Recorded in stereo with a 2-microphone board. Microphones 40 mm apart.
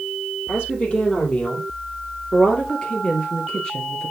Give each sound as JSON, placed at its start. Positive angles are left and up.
{"t": 0.5, "sound": "a woman speaking", "side_deg": 30, "distance_m": 3.5}